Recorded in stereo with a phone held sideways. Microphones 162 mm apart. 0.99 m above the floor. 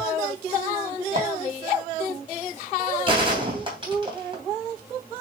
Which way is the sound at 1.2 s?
50° right (ahead or behind).